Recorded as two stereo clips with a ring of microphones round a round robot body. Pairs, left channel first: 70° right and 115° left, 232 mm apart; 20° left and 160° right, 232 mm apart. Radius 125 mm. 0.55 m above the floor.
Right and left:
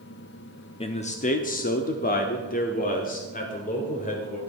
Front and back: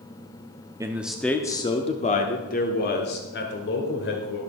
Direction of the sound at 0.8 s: 95° right.